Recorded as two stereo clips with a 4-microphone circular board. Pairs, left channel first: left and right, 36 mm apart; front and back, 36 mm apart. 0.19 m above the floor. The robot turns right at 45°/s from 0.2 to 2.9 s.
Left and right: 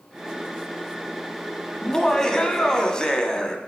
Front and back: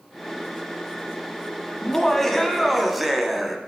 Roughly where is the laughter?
Ahead left.